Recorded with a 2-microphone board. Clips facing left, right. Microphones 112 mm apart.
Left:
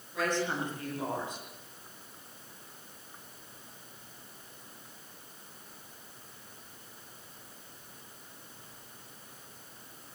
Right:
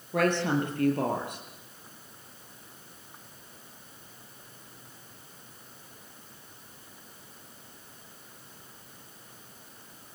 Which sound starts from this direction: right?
A woman speaking, at 0.1 s.